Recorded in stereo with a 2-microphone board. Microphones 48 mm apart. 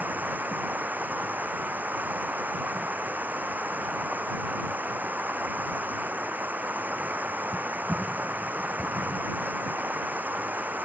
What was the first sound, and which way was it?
Running water, 40° right (ahead or behind).